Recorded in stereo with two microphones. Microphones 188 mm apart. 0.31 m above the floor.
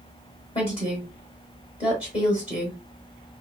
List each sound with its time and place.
0.6 s a woman speaking: 30° left (ahead or behind), 1.3 m